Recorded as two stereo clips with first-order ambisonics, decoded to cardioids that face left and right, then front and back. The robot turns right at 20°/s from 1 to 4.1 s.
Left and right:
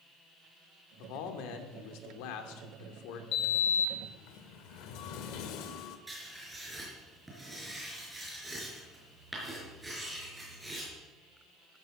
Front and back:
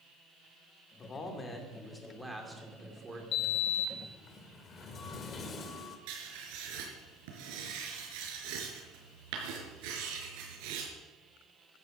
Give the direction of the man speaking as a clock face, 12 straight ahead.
10 o'clock.